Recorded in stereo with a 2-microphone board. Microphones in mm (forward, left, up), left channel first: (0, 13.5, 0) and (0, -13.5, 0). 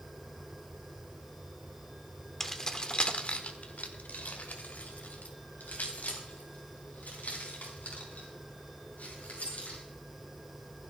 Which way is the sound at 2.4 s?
10° left (ahead or behind).